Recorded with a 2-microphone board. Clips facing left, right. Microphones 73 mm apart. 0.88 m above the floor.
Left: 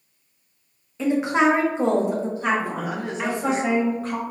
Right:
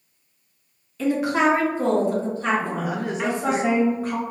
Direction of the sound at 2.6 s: 5° right (ahead or behind).